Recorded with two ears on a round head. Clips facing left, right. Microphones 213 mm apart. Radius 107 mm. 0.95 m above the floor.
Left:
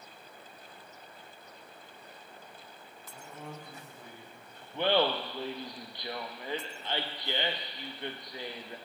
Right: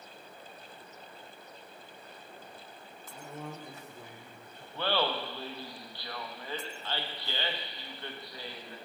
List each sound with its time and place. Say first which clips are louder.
3.1 s a man speaking: right 3 dB; 50° right (ahead or behind), 2 m; by 4.6 s 80° right, 2.5 m
4.7 s laughter: left 4 dB; 15° left (ahead or behind), 0.8 m